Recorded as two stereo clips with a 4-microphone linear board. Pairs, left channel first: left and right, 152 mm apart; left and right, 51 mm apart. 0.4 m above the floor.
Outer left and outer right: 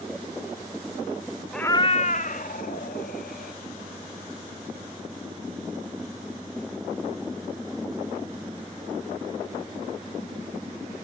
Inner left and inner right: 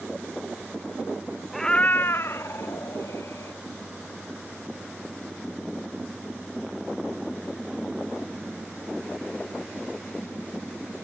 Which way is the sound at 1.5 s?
Centre (ahead or behind).